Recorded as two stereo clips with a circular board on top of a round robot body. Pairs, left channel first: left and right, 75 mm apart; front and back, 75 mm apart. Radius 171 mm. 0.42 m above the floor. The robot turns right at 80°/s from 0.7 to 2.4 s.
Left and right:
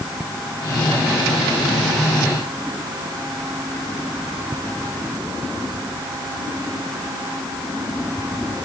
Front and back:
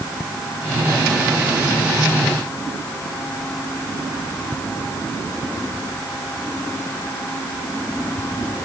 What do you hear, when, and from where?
Only background noise.